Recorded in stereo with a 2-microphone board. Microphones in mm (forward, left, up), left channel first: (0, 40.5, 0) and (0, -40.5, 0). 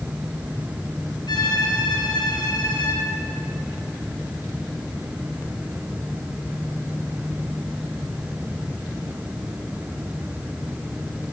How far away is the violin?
About 4.5 m.